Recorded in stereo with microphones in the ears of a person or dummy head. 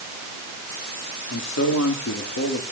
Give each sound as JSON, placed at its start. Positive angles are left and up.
{"t": 1.3, "sound": "a man speaking", "side_deg": 75, "distance_m": 3.0}